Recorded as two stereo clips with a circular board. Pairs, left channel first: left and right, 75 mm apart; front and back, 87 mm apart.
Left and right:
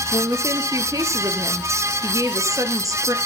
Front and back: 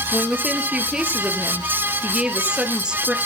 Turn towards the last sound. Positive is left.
turn(degrees=-105)